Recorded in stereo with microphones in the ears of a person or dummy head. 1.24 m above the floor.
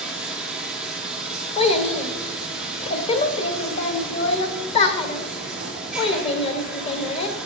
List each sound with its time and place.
0.0 s running water: centre (ahead or behind), 2.5 m
1.6 s a child speaking: 30° left (ahead or behind), 1.0 m